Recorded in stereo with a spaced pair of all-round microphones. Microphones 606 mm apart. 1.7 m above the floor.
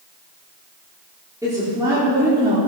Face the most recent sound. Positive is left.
turn(degrees=-5)  # may be behind; listen again after turning